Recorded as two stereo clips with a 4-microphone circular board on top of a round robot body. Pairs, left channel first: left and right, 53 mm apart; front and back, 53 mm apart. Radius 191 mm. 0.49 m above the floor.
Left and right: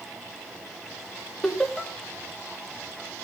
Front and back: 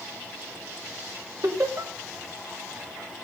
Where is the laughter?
175° left, 3 m.